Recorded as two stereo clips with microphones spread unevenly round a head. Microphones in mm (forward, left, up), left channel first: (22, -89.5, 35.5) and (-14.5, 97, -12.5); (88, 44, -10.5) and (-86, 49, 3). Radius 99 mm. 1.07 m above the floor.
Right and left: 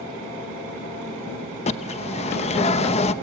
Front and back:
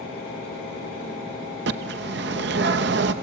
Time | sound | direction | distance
1.7 | a bird | 140° right | 0.8 m